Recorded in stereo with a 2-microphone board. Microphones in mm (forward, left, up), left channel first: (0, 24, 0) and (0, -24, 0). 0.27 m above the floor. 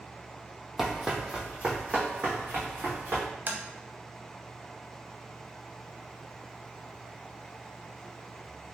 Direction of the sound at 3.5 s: 40° right (ahead or behind).